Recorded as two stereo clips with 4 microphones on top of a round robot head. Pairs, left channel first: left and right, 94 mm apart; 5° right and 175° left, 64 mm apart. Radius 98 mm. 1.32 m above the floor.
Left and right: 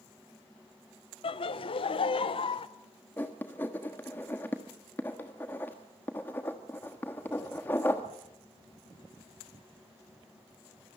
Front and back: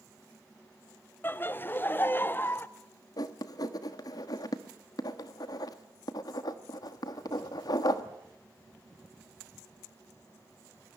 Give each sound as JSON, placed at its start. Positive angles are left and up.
{"t": 1.2, "sound": "laughter", "azimuth_deg": 55, "distance_m": 1.1}
{"t": 3.2, "sound": "writing", "azimuth_deg": 15, "distance_m": 1.3}